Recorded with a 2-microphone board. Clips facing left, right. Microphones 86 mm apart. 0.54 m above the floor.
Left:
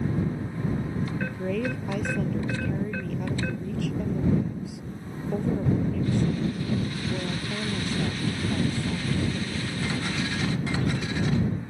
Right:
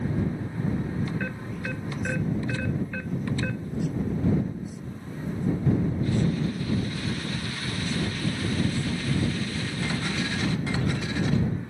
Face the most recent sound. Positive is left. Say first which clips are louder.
# left 5 dB
turn(degrees=75)  # may be behind; listen again after turning